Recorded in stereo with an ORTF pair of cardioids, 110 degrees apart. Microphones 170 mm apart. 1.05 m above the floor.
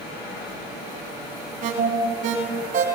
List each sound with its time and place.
1.6 s an alarm: 55° right, 5 m